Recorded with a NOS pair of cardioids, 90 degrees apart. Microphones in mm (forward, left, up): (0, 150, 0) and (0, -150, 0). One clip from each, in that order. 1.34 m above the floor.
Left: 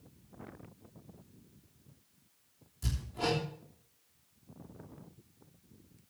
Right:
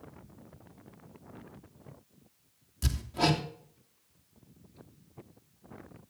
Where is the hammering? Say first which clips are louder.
Right 5 dB; 65° right, 3 m.